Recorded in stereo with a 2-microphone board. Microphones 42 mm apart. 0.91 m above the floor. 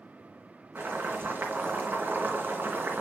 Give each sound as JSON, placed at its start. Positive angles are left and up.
{"t": 0.8, "sound": "boiling", "side_deg": -50, "distance_m": 3.0}